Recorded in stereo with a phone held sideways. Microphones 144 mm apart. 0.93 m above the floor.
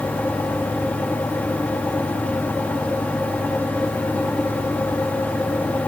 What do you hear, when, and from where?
0.0 s a fan: 10° left (ahead or behind), 1.4 m